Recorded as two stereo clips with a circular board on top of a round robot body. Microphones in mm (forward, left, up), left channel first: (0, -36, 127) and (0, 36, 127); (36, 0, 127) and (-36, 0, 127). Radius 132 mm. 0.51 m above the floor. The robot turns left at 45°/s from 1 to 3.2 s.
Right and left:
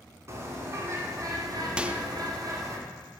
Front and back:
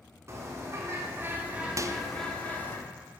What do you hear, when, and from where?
0.3 s a bird: 135° left, 1.9 m; by 2.8 s 55° left, 1.9 m
1.8 s a microwave: 160° left, 0.7 m; by 2.0 s 150° left, 0.7 m